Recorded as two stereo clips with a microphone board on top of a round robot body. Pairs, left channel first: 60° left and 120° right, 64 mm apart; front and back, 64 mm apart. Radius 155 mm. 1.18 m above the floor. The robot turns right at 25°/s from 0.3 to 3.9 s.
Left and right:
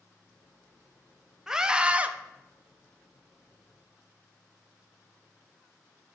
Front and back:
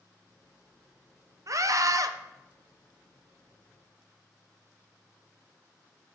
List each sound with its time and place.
1.5 s a scream: 160° left, 0.9 m; by 2.1 s 175° left, 0.9 m